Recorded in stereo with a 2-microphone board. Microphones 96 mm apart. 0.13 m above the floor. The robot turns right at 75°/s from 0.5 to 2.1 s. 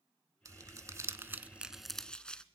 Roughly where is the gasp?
No gasp in this recording.